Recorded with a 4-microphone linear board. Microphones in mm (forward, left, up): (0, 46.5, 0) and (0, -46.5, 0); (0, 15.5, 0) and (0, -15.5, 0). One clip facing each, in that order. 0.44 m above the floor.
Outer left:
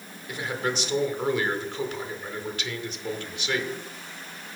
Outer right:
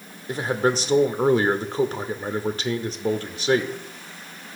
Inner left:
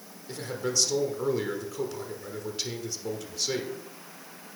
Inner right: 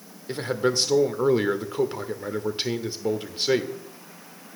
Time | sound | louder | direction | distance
0.3 | a man speaking | outer right 7 dB, inner right 7 dB | 35° right (ahead or behind) | 0.9 m